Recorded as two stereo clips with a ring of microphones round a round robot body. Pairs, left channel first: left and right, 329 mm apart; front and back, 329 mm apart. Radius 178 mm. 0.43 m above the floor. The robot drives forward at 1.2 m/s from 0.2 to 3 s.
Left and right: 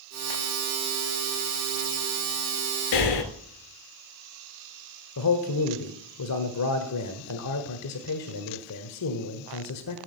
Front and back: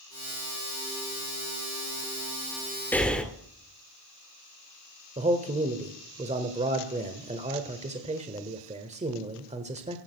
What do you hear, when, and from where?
2.9 s breathing: 85° left, 2 m
5.2 s a man speaking: 115° left, 1.3 m